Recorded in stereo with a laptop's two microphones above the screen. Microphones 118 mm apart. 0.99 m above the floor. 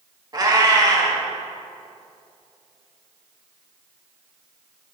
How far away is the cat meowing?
About 0.9 m.